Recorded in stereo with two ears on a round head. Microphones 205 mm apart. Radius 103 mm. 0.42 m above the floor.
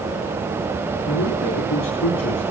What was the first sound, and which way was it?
A man speaking, 65° left (ahead or behind).